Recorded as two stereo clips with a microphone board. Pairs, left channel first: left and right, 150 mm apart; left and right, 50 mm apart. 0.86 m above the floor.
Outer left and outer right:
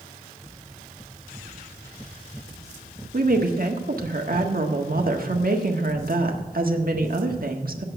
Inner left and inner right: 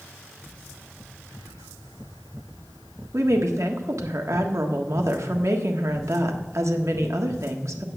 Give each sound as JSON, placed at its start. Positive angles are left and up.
{"t": 3.1, "sound": "a woman speaking", "side_deg": -70, "distance_m": 1.5}